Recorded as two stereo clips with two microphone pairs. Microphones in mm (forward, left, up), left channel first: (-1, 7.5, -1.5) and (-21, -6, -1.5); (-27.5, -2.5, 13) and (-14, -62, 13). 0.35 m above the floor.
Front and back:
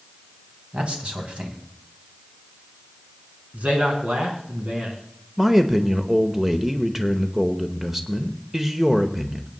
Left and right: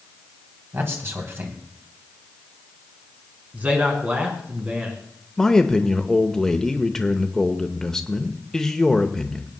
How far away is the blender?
No blender in this recording.